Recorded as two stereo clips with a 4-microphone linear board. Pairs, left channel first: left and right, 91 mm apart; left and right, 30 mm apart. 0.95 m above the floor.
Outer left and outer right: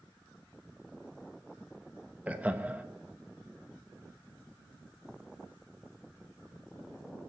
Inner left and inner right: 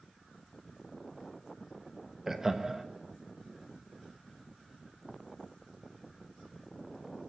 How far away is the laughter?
About 1.1 m.